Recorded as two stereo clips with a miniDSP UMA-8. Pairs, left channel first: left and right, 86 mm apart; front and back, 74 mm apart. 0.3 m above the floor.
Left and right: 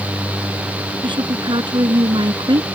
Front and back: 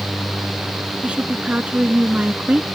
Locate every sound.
1.0 s a woman speaking: 110° right